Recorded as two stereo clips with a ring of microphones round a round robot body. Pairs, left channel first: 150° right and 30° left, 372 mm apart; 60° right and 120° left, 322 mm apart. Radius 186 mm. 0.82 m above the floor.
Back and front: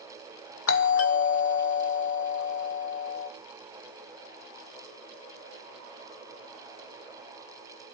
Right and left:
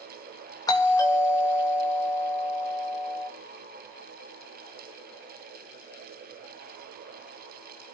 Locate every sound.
0.7 s a doorbell: 135° right, 1.8 m